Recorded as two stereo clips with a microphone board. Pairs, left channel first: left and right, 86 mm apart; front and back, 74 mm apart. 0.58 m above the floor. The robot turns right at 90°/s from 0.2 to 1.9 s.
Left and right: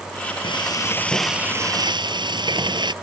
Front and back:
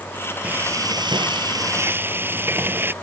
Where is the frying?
110° left; by 2.9 s 120° right.